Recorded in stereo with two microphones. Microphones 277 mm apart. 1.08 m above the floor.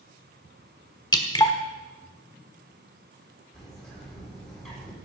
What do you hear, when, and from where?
1.1 s dripping: 15° left (ahead or behind), 1.2 m
3.5 s a bird: centre (ahead or behind), 4 m